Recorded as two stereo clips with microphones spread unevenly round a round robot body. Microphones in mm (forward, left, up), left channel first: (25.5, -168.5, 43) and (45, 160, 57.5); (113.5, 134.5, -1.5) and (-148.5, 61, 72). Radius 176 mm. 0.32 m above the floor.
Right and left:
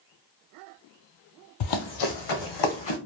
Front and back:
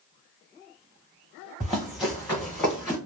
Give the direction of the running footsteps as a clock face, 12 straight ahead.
3 o'clock.